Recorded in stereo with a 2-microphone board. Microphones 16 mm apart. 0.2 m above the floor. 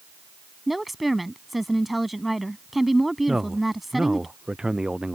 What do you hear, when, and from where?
0.7 s a woman speaking: 10° right (ahead or behind)
3.3 s a man speaking: 50° right (ahead or behind)